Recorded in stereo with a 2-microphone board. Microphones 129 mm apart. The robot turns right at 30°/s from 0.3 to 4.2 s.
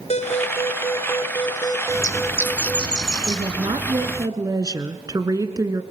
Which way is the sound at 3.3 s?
45° right (ahead or behind).